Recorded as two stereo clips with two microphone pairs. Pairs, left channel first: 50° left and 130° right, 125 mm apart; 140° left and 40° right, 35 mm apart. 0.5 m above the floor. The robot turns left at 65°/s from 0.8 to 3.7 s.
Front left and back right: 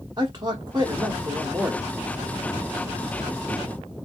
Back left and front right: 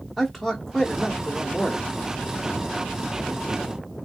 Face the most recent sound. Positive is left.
turn(degrees=30)